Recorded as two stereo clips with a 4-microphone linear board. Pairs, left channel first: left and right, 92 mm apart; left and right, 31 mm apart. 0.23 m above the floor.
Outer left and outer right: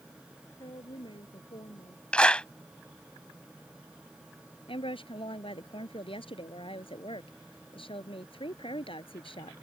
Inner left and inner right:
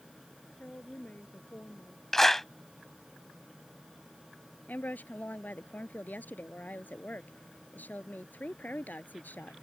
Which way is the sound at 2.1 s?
10° left (ahead or behind).